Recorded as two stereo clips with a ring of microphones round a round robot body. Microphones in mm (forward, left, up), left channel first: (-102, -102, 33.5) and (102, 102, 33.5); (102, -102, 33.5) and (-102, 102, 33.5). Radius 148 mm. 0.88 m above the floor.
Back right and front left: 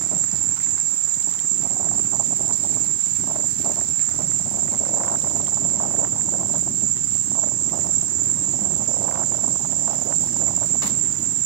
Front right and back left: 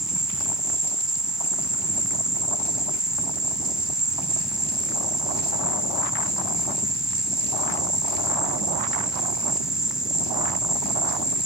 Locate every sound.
0.0 s an insect: 45° left, 1.0 m